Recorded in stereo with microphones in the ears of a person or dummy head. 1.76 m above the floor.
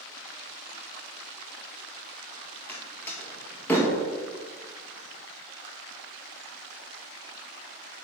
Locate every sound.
2.7 s a door slam: 10° left (ahead or behind), 1.9 m